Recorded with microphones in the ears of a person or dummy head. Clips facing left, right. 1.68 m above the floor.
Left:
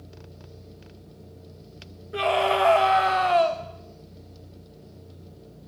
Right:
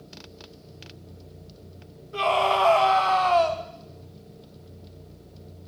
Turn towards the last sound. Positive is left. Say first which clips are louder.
# left 1 dB
turn(degrees=15)  # may be behind; listen again after turning